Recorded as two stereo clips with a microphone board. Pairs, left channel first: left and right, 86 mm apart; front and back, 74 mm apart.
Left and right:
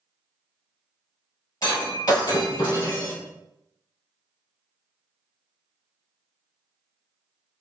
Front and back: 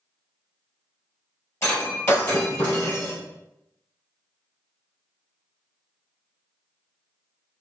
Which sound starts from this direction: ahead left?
Breaking glass, at 1.6 s.